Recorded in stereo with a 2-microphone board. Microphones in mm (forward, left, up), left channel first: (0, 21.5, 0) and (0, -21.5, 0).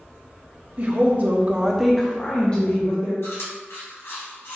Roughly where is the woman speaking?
Right.